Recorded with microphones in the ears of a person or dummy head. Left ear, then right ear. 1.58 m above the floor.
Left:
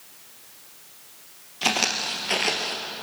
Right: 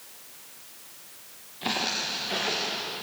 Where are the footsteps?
35° left (ahead or behind), 2.5 m; by 2.8 s 45° left (ahead or behind), 2 m.